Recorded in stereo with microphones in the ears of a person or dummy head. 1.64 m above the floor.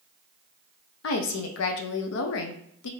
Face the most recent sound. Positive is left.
turn(degrees=75)  # may be behind; listen again after turning